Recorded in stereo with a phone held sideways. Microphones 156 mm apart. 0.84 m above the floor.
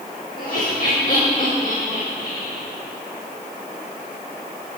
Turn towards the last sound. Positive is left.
turn(degrees=60)  # may be behind; listen again after turning